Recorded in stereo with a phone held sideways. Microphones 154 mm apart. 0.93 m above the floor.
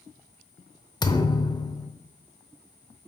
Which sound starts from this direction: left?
A thud, at 1.0 s.